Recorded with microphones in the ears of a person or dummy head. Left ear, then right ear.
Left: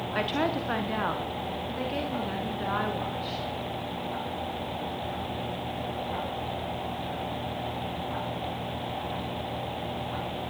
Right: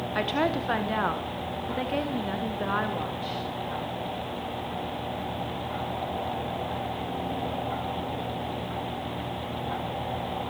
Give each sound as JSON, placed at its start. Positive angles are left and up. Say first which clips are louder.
{"t": 0.1, "sound": "a woman speaking", "louder": "right 2 dB", "side_deg": -5, "distance_m": 1.1}